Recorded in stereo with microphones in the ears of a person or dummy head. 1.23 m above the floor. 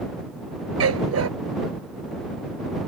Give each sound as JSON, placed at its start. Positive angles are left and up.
{"t": 0.8, "sound": "a dog barking", "side_deg": -85}